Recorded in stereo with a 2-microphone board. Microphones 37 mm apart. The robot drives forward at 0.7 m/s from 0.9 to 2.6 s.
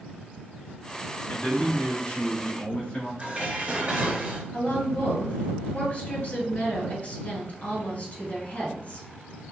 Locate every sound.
1.3 s a man speaking: 45° left (ahead or behind), 1.4 m; by 3.1 s 30° left (ahead or behind), 1.9 m
3.2 s dishes clattering: 25° right (ahead or behind), 1.9 m
4.5 s a woman speaking: 45° left (ahead or behind), 1.8 m